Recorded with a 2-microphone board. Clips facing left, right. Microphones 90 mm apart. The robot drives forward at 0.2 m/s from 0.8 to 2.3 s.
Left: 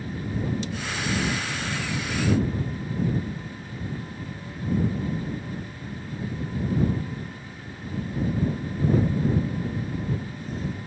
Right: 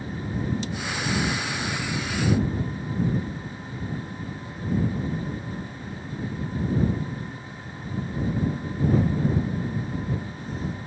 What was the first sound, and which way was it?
Only background noise.